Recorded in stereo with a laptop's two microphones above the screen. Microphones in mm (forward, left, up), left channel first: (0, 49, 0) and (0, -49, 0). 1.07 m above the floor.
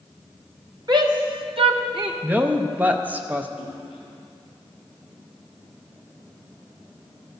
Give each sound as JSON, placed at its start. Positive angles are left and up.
{"t": 0.9, "sound": "a shout", "side_deg": -45, "distance_m": 1.1}
{"t": 2.2, "sound": "a woman speaking", "side_deg": -15, "distance_m": 0.5}
{"t": 3.6, "sound": "a splash", "side_deg": 65, "distance_m": 2.5}